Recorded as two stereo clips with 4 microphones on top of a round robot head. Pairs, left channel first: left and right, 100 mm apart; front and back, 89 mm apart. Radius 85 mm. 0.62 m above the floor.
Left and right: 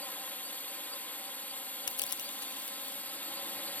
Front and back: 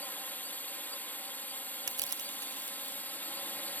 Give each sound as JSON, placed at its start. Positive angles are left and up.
{"t": 0.0, "sound": "a drone", "azimuth_deg": 40}
{"t": 1.9, "sound": "crushing", "azimuth_deg": 135}